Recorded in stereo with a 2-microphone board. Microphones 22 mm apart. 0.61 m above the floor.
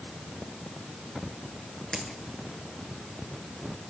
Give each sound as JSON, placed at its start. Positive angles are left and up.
{"t": 1.9, "sound": "a dropped coin", "side_deg": 25, "distance_m": 4.5}